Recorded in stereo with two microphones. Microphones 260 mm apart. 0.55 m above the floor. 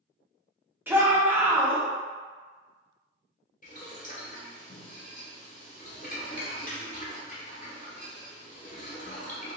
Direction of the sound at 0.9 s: 10° right (ahead or behind).